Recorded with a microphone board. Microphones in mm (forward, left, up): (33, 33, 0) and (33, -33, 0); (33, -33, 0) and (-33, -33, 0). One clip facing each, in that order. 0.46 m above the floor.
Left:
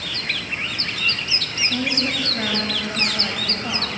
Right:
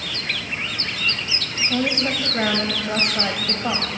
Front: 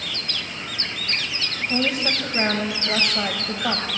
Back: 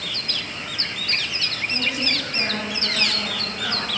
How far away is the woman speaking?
About 2 m.